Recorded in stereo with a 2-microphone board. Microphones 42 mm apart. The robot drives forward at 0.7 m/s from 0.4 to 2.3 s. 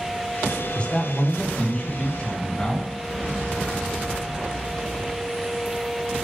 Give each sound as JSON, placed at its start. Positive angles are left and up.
{"t": 0.8, "sound": "a man speaking", "side_deg": 25, "distance_m": 1.6}